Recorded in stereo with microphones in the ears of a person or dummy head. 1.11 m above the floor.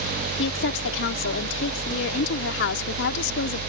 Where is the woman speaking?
70° left (ahead or behind).